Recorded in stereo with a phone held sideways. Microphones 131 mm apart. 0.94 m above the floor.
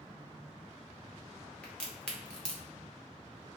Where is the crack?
10° left (ahead or behind), 1.1 m.